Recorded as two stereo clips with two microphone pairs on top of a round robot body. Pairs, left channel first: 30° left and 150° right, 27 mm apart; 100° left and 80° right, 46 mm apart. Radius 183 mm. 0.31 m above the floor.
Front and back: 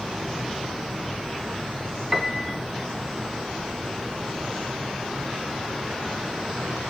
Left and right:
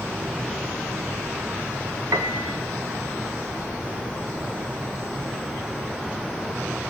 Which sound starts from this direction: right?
A piano, at 2.1 s.